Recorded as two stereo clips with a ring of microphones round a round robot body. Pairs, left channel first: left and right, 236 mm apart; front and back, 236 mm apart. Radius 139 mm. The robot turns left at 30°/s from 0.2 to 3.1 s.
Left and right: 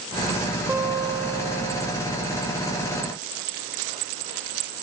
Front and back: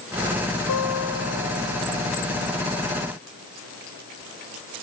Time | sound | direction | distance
0.7 | a guitar | 10° right | 2 m